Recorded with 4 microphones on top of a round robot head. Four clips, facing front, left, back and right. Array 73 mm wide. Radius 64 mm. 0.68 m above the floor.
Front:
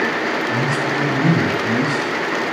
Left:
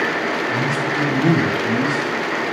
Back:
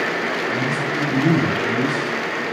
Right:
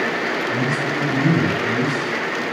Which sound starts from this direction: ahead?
A man speaking, at 0.5 s.